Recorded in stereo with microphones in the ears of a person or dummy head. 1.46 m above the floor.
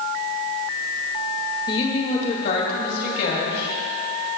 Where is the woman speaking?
30° left (ahead or behind), 1.7 m; by 3.8 s 65° left (ahead or behind), 3 m.